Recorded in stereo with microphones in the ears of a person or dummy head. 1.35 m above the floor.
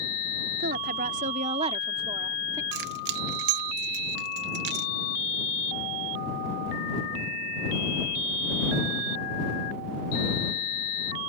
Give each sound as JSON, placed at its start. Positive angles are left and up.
{"t": 0.6, "sound": "a woman speaking", "side_deg": -55}
{"t": 2.7, "sound": "keys jangling", "side_deg": -65}